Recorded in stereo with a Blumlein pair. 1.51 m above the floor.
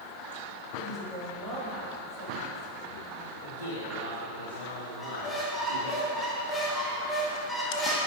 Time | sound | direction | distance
0.8 | a woman speaking | 10° right | 3 m
3.4 | a man speaking | 60° left | 2.0 m
5.0 | a squeak | 10° left | 1.4 m